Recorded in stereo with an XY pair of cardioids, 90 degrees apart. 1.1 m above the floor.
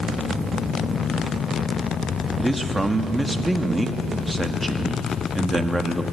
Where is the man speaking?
15° right, 1.7 m.